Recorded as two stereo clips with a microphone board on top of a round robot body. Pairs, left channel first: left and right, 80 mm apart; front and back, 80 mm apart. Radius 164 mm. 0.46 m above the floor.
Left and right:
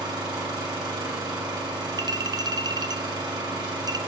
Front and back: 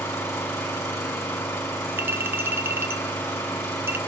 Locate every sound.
0.0 s an engine running: 60° right, 2.5 m
2.0 s a clink: 120° right, 0.7 m